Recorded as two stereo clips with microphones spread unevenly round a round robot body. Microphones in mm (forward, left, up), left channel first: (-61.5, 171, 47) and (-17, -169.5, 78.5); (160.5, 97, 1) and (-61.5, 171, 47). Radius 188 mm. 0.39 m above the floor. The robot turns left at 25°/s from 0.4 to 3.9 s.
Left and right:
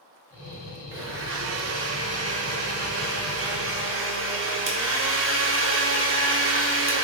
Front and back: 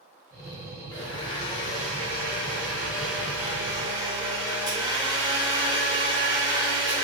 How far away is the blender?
About 0.7 m.